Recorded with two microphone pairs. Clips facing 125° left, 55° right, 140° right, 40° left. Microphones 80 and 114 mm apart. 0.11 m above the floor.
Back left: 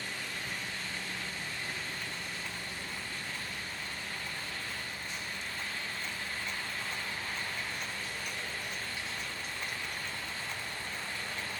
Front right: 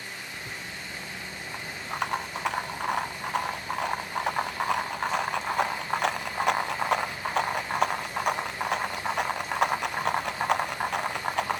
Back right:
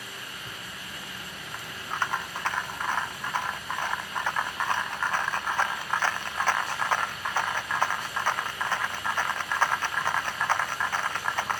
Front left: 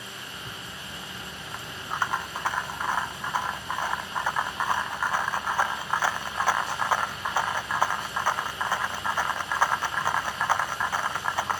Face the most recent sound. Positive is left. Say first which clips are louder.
# front right 1 dB, front left 1 dB
turn(degrees=-40)